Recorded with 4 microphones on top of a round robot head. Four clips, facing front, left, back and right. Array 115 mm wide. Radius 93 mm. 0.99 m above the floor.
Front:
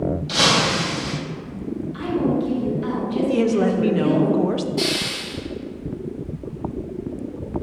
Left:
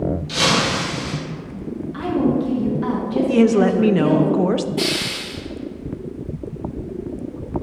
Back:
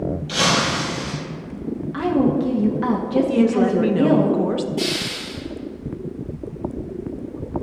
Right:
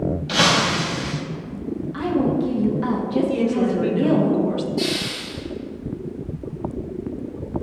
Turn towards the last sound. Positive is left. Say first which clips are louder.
# left 1 dB, even
turn(degrees=65)